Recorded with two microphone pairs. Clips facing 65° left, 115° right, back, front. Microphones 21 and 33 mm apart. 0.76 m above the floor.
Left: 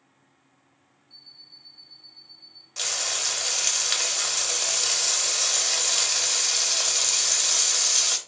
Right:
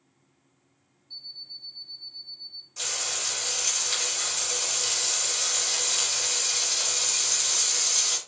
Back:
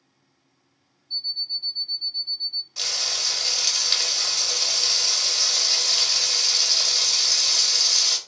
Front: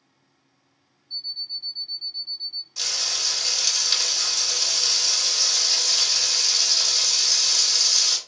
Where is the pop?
No pop in this recording.